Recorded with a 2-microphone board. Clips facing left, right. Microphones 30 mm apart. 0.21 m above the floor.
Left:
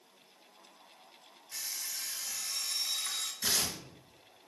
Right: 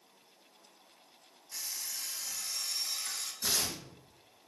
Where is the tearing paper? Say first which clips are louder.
Even; 70° left (ahead or behind), 0.8 m.